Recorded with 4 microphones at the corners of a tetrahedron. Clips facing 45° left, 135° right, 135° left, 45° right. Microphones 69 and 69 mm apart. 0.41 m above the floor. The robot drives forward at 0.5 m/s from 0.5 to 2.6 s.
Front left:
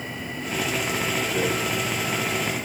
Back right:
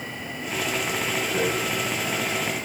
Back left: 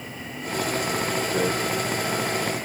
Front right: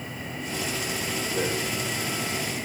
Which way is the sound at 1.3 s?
165° left.